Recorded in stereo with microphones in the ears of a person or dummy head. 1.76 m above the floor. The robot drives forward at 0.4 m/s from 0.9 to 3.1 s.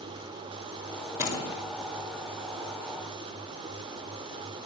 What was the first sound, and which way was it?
A door slam, 5° right (ahead or behind).